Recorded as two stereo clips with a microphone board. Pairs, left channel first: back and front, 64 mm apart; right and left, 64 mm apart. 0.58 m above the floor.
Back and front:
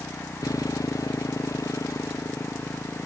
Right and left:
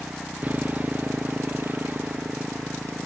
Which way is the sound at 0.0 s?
155° left.